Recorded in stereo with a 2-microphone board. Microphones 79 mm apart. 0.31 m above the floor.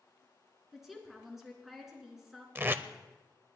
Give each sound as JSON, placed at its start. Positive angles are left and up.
{"t": 0.7, "sound": "a woman speaking", "side_deg": -5, "distance_m": 3.5}
{"t": 2.5, "sound": "tape being pulled", "side_deg": -25, "distance_m": 0.5}